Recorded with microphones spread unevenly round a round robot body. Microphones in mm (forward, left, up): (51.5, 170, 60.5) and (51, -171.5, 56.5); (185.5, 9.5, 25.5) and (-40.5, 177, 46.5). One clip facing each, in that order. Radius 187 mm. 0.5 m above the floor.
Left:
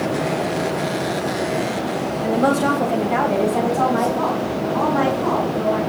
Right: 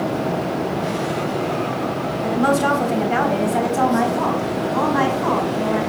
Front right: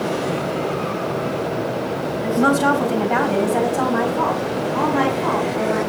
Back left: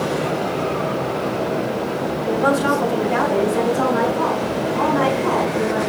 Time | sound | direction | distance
2.2 | a woman speaking | 20° right | 3 m